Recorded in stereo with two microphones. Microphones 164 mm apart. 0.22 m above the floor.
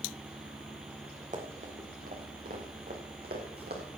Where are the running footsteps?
45° right (ahead or behind), 4 m; by 3.8 s 75° right (ahead or behind), 5 m.